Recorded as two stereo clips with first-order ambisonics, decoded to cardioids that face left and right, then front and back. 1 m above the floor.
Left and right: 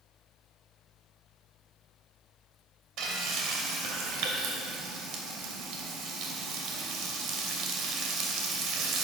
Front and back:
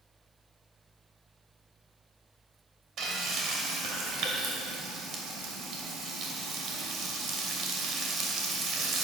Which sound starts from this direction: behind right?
Frying, at 3.0 s.